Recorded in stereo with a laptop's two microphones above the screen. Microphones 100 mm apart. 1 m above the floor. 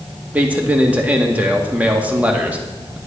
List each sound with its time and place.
0.3 s a man speaking: 15° right (ahead or behind), 2 m